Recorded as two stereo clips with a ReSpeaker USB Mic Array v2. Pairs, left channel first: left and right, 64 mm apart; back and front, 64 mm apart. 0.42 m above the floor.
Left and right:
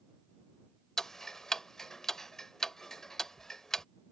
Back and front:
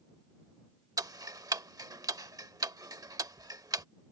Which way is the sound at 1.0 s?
10° left.